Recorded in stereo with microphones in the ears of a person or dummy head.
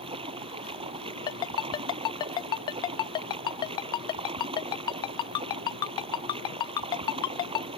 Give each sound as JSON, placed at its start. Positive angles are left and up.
{"t": 0.0, "sound": "running water", "side_deg": -25}
{"t": 1.3, "sound": "a ringtone", "side_deg": 30}